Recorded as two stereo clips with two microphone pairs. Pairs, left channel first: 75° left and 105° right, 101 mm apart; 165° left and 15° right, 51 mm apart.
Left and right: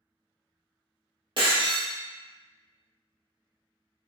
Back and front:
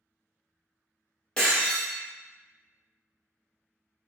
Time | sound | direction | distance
1.4 | breaking glass | 120° right | 1.3 m